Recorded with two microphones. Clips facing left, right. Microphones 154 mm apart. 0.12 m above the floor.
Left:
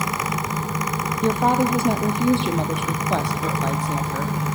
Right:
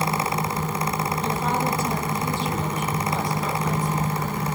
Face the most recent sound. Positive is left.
turn(degrees=75)  # may be behind; listen again after turning